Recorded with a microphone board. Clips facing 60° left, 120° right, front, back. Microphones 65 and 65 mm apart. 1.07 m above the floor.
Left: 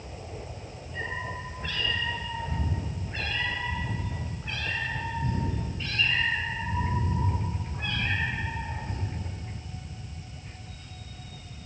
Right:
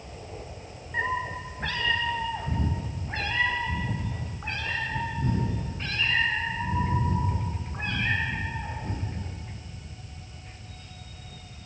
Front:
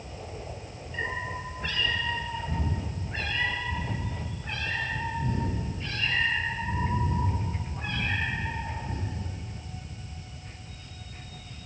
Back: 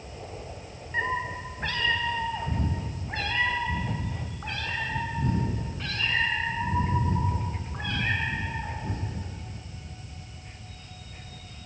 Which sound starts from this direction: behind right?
A cat meowing, at 0.9 s.